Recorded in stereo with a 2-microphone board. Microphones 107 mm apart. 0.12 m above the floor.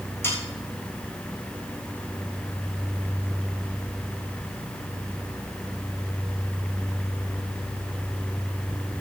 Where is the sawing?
20° left (ahead or behind), 6 m.